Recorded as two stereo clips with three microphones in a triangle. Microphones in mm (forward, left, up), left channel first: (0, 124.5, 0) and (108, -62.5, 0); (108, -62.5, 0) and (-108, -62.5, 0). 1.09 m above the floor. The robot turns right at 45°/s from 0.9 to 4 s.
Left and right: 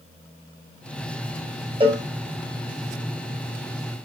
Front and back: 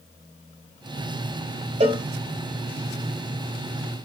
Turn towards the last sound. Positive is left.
turn(degrees=-20)